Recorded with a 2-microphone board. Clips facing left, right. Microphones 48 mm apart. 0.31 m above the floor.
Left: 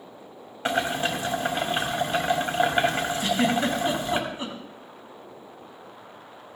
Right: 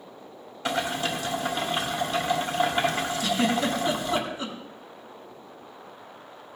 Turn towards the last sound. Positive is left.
turn(degrees=30)  # may be behind; listen again after turning